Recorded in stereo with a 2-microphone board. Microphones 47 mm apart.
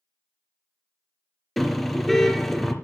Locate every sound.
1.6 s a car horn: 5° left (ahead or behind), 3.5 m